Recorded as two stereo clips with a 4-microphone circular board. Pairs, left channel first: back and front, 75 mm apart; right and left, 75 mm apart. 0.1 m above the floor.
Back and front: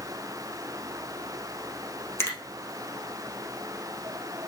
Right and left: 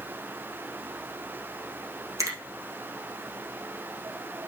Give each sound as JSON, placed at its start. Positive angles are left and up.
{"t": 2.2, "sound": "a finger snap", "azimuth_deg": 130, "distance_m": 2.5}